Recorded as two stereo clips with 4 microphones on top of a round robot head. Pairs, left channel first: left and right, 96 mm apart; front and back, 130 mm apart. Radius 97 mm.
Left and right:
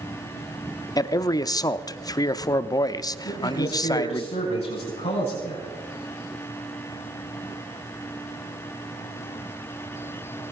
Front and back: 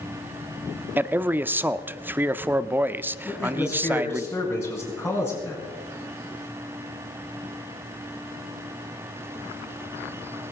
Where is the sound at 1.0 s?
110° left, 0.8 m.